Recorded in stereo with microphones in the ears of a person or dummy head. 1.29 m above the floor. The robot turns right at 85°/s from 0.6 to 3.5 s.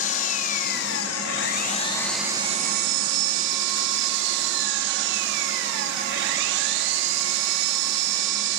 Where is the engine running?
45° left, 2.5 m; by 8.6 s 65° right, 2.5 m.